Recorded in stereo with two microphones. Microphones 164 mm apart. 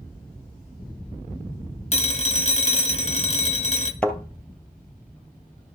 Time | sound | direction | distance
1.9 | a phone ringing | 45° left (ahead or behind) | 1.1 m
4.0 | a thud | 10° left (ahead or behind) | 1.8 m